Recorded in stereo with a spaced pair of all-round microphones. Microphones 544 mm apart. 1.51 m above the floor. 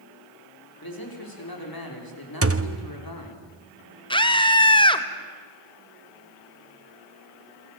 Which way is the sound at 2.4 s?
25° right (ahead or behind).